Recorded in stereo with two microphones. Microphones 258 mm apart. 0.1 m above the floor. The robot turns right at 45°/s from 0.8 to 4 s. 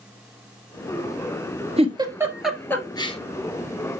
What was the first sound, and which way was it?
A giggle, 25° right (ahead or behind).